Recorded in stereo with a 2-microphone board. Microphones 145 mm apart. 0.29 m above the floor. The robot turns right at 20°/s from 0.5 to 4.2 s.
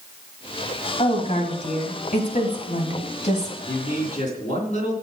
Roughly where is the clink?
No clink in this recording.